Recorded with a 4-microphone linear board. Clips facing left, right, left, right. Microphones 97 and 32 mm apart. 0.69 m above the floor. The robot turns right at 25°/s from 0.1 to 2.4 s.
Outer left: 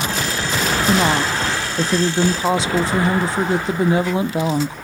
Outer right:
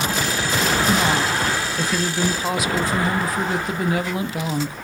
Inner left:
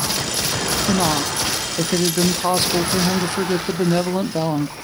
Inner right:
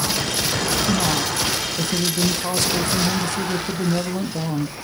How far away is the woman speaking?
About 0.5 m.